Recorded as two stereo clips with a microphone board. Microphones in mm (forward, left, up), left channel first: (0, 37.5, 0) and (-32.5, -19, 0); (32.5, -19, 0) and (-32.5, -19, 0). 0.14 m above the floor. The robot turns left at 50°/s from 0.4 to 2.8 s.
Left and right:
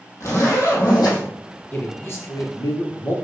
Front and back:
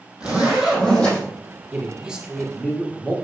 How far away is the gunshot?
No gunshot in this recording.